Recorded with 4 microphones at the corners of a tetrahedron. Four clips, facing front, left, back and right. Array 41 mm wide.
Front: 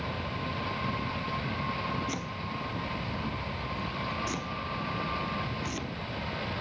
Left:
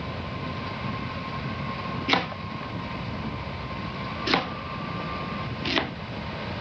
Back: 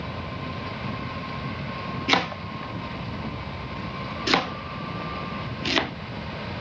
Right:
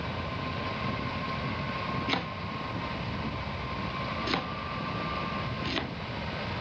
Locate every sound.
2.1 s chopping: 155° left